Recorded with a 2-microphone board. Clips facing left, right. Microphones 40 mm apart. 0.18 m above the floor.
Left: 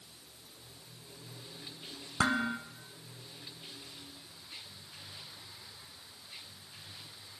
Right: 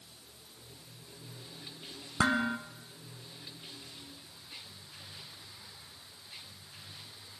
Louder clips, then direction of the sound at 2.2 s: Right 1 dB; 15° right (ahead or behind).